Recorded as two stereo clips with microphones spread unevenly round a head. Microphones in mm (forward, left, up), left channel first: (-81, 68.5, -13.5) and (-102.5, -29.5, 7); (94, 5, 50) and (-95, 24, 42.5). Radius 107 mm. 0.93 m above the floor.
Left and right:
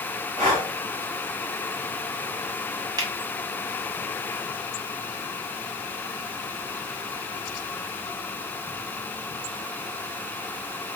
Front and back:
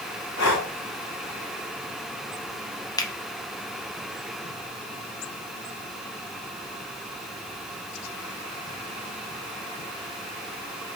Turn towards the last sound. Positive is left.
turn(degrees=-60)